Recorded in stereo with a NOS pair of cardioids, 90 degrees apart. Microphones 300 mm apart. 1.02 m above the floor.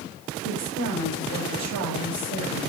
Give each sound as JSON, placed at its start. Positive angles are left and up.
{"t": 0.4, "sound": "a woman speaking", "azimuth_deg": -65, "distance_m": 4.5}